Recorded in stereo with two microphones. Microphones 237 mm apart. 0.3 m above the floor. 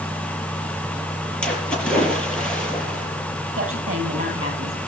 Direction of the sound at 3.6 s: 65° right (ahead or behind).